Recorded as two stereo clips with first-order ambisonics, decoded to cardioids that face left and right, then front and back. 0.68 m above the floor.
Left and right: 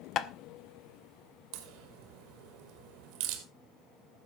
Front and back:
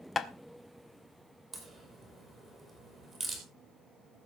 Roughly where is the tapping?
Ahead left.